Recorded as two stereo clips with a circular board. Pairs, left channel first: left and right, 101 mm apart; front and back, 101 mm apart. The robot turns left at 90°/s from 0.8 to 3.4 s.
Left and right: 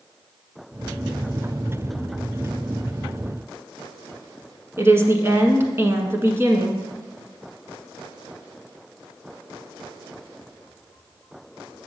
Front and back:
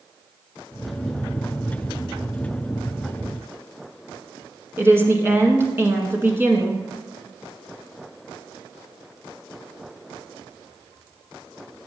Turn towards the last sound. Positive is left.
turn(degrees=-135)